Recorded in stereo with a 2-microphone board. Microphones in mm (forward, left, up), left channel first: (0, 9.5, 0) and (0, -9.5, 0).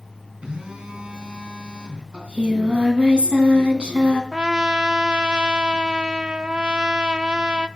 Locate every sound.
0.4 s a phone buzzing: 60° right (ahead or behind), 3.5 m
2.1 s singing: 75° right (ahead or behind), 3 m
4.3 s a trumpet: 50° right (ahead or behind), 0.7 m